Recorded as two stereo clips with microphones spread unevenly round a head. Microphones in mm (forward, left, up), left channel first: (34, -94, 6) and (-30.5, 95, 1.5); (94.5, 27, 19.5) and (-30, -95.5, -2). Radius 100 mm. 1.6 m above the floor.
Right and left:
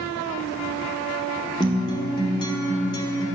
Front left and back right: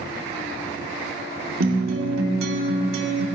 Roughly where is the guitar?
Behind right.